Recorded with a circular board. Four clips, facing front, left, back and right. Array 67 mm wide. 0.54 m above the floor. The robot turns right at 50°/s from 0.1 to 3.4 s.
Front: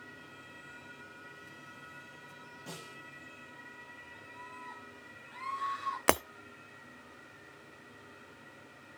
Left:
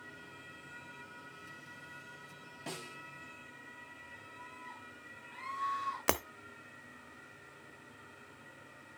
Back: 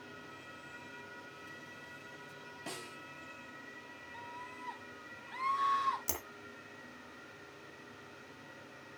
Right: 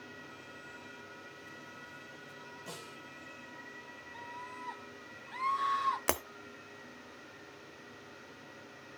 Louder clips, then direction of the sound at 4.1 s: Right 8 dB, back 3 dB; 130° right.